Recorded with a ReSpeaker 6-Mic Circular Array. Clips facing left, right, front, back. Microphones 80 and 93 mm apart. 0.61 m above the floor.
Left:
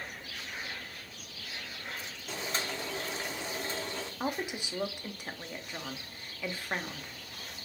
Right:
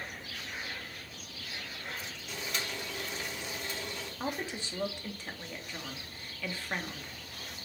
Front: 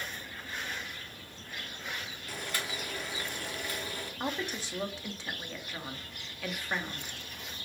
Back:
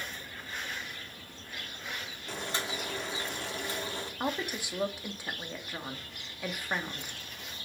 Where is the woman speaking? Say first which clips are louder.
Left 2 dB, back 1 dB; 130° left, 0.6 m.